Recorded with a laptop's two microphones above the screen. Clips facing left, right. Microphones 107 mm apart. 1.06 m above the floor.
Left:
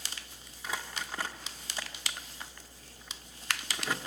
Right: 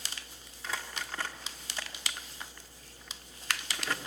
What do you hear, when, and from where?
0.6 s crumpling: 15° left (ahead or behind), 1.2 m